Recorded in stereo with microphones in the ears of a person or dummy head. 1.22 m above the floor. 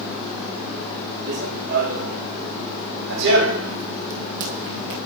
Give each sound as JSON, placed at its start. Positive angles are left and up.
{"t": 1.3, "sound": "running footsteps", "side_deg": -65, "distance_m": 4.0}